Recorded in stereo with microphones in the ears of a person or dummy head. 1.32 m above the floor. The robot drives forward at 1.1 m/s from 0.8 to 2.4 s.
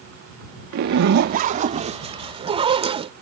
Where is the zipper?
50° right (ahead or behind); by 3.1 s 20° right (ahead or behind).